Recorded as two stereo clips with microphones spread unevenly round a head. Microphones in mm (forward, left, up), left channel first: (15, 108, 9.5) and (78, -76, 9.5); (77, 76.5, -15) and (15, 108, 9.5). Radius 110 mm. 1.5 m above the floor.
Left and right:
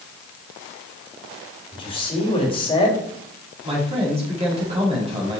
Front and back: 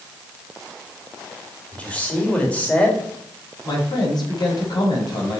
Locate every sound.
1.7 s a man speaking: 45° left, 3.5 m
3.6 s a man speaking: 10° right, 4.5 m